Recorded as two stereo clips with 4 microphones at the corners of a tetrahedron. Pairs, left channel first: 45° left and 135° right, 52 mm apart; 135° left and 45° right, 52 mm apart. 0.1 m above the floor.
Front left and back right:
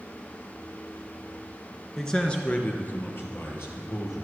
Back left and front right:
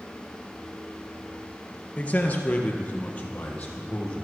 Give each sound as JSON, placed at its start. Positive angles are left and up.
{"t": 2.0, "sound": "a man speaking", "azimuth_deg": 120, "distance_m": 1.7}